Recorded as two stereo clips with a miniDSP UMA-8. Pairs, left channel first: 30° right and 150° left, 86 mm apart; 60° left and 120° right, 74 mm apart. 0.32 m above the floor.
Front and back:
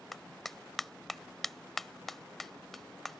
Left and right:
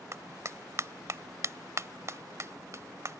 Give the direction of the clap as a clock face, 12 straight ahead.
4 o'clock.